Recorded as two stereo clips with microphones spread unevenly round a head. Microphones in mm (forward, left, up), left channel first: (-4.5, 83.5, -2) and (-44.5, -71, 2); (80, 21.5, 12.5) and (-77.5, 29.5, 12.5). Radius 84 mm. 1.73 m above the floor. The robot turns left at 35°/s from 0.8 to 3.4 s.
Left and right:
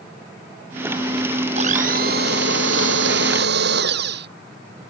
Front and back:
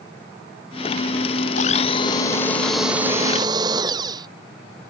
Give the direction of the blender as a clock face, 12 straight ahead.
2 o'clock.